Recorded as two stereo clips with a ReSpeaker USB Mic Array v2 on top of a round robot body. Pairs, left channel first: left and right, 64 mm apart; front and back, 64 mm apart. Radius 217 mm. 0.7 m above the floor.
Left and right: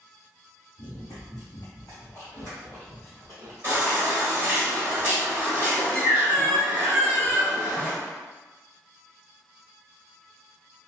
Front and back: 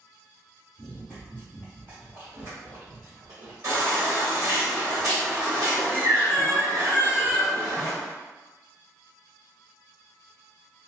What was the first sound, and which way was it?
Running footsteps, 75° left.